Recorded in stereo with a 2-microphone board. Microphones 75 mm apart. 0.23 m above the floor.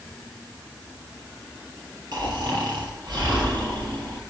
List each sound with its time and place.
2.1 s snoring: 65° right (ahead or behind), 4 m